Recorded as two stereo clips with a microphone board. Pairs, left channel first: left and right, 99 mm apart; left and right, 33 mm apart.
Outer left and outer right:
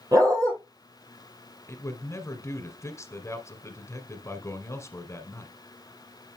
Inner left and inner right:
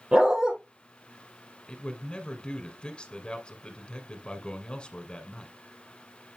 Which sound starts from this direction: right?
A dog barking, at 0.1 s.